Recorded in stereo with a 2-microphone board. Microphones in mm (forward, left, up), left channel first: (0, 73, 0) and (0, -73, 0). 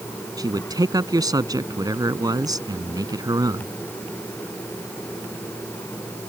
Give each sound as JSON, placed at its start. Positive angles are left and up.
{"t": 0.4, "sound": "a man speaking", "side_deg": -30}